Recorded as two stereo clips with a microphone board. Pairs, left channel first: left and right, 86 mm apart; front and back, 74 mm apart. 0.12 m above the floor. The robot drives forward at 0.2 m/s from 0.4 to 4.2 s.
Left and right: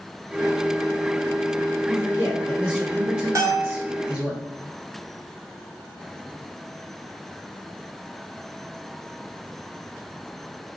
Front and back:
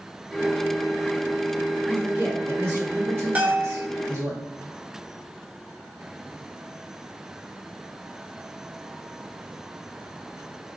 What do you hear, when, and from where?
1.9 s a man speaking: 155° right, 1.6 m; by 4.3 s 160° right, 1.9 m
3.4 s a bell: 120° right, 0.8 m; by 3.9 s 130° right, 0.9 m